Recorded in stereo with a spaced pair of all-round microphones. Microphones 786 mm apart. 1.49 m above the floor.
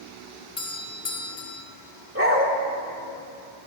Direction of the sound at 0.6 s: 35° left (ahead or behind).